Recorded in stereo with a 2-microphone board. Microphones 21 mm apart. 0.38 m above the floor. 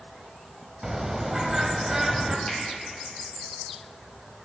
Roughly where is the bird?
Right.